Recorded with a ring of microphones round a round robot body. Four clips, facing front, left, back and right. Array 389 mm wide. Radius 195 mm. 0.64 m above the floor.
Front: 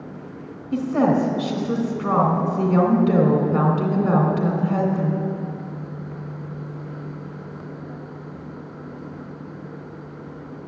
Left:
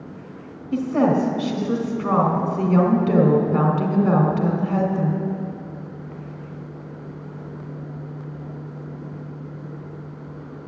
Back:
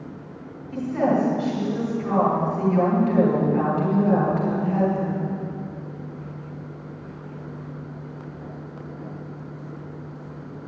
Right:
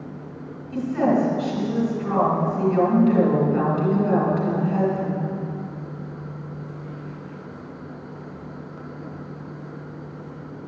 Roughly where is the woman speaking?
Ahead left.